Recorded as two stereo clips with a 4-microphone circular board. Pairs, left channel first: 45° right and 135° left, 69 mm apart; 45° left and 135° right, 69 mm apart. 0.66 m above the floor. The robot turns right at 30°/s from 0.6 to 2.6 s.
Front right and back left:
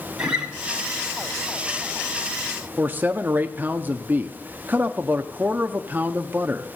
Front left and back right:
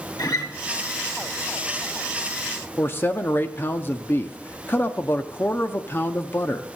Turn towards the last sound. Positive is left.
turn(degrees=85)